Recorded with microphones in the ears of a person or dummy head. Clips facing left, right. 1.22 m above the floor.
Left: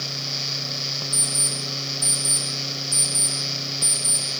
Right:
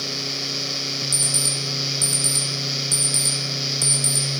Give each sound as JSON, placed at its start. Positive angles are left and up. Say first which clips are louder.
{"t": 1.1, "sound": "an alarm clock", "louder": "right 2 dB", "side_deg": -35, "distance_m": 0.6}